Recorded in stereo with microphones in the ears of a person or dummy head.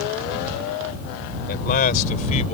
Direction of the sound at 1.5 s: 50° left (ahead or behind).